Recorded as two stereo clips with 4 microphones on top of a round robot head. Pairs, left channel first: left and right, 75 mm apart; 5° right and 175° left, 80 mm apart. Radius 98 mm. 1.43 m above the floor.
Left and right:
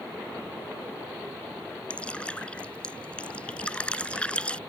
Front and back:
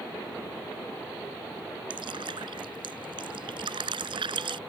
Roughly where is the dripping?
Behind.